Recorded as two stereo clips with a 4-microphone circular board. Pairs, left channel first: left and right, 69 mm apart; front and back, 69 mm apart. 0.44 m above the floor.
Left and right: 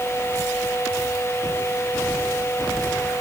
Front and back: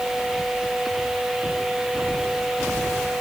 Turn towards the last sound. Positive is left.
No sound to turn to.